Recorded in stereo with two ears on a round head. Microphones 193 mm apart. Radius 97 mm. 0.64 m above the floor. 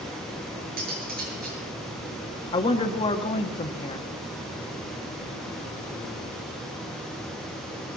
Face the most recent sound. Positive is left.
turn(degrees=25)  # may be behind; listen again after turning